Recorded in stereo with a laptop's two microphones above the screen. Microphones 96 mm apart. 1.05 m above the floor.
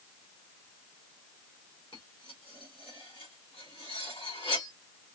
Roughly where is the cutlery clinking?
Left.